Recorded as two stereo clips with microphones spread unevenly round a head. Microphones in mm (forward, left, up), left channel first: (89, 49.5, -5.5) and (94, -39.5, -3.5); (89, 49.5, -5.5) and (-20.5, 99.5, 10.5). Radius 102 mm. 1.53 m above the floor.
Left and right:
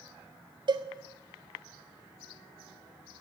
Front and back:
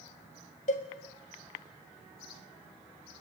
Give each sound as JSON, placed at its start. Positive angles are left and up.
{"t": 0.7, "sound": "a cowbell", "azimuth_deg": -60, "distance_m": 1.6}